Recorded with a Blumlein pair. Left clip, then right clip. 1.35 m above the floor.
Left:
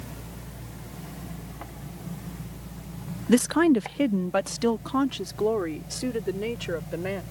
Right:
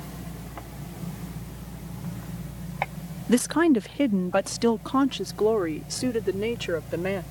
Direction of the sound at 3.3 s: 5° left.